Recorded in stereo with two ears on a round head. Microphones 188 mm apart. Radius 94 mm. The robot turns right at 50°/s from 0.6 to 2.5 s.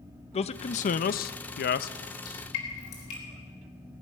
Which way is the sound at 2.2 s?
80° left.